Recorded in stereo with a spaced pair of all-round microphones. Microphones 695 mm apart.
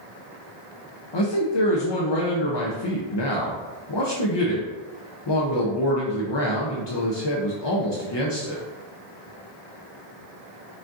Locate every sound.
1.1 s a man speaking: 40° left (ahead or behind), 0.6 m